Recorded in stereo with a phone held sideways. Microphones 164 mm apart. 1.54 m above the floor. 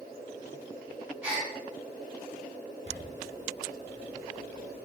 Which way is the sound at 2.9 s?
45° left (ahead or behind).